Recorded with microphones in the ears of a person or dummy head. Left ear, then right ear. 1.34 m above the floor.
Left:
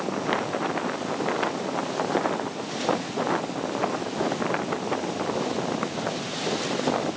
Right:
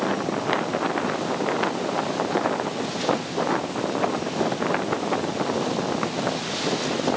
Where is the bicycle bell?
No bicycle bell in this recording.